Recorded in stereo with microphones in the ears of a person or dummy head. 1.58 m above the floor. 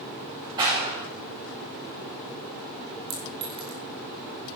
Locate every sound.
0.6 s a clap: 25° right (ahead or behind), 6.5 m
3.1 s a clink: 30° right (ahead or behind), 3 m